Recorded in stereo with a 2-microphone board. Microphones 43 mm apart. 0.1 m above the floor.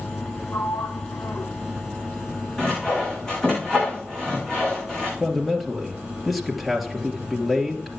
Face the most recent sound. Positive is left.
turn(degrees=0)  # may be behind; listen again after turning